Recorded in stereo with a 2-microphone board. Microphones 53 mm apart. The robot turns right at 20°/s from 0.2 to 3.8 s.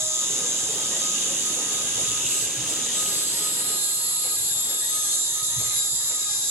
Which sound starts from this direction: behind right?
An insect, at 0.0 s.